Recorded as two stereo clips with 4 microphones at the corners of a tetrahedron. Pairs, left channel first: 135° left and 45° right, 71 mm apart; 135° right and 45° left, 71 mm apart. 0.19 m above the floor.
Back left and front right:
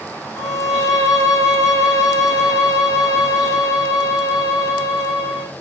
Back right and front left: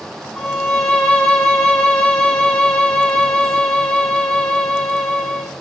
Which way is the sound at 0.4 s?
160° left.